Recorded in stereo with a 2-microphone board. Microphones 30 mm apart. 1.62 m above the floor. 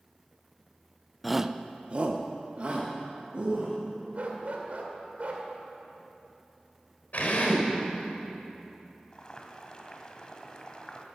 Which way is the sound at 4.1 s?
50° right (ahead or behind).